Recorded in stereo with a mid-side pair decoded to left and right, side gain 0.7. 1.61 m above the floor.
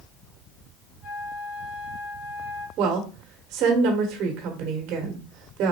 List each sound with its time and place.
1.0 s a flute: 55° left, 2.5 m
2.8 s a woman speaking: 55° right, 1.6 m